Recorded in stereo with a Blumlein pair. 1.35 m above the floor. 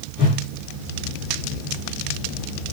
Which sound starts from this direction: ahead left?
A whoosh, at 0.2 s.